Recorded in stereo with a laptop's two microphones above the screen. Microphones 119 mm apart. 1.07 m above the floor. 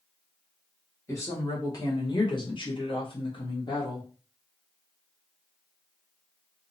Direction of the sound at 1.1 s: 25° left (ahead or behind).